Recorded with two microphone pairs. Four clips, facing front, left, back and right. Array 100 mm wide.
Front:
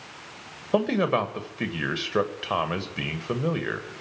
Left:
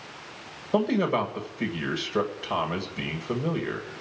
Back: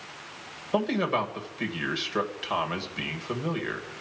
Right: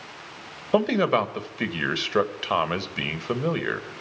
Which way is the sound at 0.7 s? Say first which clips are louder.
Right 3 dB, front 3 dB; 70° right.